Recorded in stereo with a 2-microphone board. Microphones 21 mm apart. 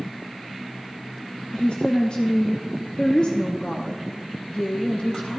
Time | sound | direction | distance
1.5 | a woman speaking | 45° left (ahead or behind) | 0.7 m